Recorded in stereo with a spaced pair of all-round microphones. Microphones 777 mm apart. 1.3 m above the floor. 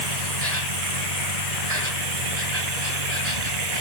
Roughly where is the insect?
Right.